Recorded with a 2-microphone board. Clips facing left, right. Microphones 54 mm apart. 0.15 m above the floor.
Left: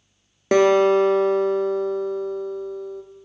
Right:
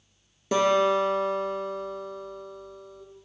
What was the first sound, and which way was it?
A guitar, 70° left (ahead or behind).